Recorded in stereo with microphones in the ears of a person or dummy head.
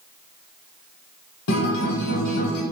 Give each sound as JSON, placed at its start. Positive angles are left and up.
{"t": 1.5, "sound": "a guitar", "side_deg": 75, "distance_m": 0.8}